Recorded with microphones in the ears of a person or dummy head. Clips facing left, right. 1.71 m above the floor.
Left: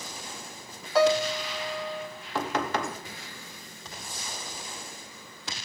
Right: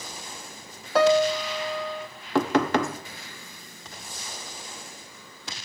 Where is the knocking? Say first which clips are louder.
Right 7 dB; 60° right (ahead or behind), 0.8 m.